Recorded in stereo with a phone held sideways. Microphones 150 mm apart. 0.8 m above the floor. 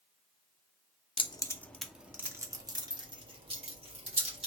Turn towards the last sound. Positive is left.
turn(degrees=-45)  # may be behind; listen again after turning